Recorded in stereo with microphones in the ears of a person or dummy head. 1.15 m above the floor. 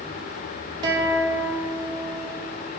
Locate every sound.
0.8 s a guitar: 30° right (ahead or behind), 3 m